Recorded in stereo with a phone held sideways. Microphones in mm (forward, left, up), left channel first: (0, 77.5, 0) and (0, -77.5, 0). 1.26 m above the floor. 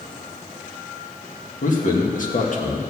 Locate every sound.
1.6 s a man speaking: 60° left (ahead or behind), 1.8 m